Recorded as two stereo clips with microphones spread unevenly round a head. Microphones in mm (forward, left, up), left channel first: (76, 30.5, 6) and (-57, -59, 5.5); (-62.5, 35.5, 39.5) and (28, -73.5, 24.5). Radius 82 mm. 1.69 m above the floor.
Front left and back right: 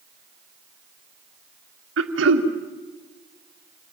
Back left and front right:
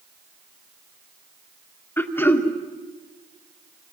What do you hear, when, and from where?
2.0 s throat clearing: 155° right, 2 m